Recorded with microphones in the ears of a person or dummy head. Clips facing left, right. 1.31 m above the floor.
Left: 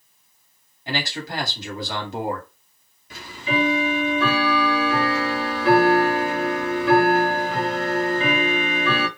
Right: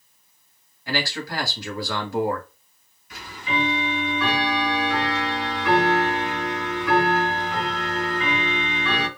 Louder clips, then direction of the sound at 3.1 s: Left 3 dB; 25° left (ahead or behind).